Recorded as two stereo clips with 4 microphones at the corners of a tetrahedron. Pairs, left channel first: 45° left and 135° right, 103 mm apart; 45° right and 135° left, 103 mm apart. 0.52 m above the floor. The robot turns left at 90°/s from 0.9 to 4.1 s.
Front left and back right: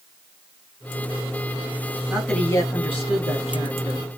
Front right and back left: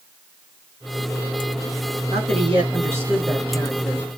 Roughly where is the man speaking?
Behind left.